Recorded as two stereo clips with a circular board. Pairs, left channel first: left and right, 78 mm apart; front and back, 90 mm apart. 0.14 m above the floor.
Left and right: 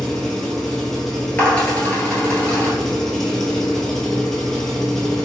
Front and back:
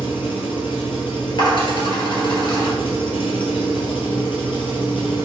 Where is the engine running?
5° left, 0.8 m.